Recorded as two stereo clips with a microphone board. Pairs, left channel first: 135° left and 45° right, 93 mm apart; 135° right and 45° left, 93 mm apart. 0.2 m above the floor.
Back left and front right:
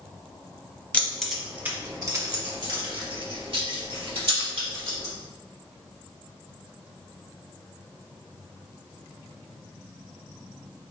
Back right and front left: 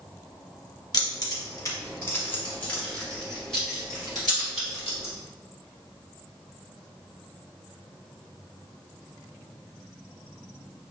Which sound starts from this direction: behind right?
Keys jangling, at 0.9 s.